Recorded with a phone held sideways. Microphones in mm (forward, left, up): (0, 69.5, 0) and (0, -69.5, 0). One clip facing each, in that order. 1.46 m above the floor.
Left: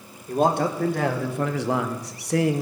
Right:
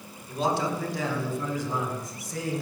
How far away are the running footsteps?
No running footsteps in this recording.